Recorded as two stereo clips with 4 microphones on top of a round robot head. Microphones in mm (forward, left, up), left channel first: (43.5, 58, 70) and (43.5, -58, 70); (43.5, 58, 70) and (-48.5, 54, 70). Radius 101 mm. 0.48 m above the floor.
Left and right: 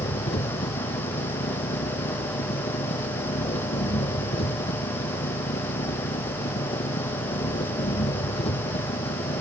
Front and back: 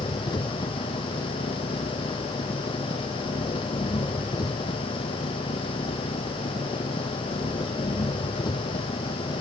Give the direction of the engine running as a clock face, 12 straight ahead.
10 o'clock.